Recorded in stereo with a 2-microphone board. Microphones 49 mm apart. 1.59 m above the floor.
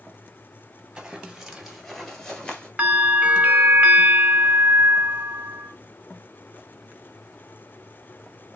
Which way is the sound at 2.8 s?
30° right (ahead or behind).